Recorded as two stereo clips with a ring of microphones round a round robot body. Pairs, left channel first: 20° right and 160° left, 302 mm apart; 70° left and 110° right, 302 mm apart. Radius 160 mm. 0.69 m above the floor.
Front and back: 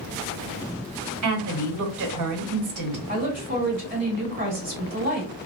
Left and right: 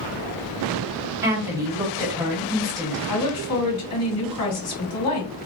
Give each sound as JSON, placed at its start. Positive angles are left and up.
{"t": 1.2, "sound": "a woman speaking", "azimuth_deg": 170, "distance_m": 1.5}
{"t": 3.1, "sound": "a woman speaking", "azimuth_deg": 95, "distance_m": 2.5}